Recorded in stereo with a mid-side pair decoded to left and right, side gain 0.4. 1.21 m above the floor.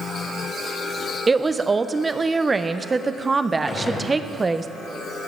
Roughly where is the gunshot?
Ahead left.